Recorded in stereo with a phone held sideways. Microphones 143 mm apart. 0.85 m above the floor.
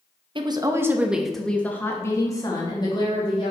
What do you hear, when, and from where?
0.3 s a woman speaking: 35° right (ahead or behind), 0.8 m; by 3.5 s 35° left (ahead or behind), 1.8 m